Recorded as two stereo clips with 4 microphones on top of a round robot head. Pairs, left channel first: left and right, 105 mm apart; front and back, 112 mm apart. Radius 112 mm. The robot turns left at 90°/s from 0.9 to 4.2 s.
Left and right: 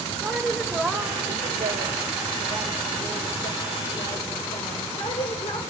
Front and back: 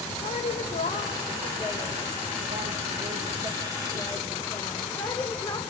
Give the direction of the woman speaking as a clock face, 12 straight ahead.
12 o'clock.